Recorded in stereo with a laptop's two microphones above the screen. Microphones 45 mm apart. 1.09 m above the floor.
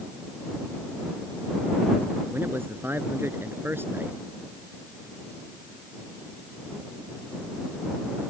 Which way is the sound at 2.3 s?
60° right (ahead or behind).